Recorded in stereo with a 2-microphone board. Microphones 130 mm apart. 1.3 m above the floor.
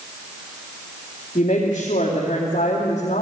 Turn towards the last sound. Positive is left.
turn(degrees=65)  # may be behind; listen again after turning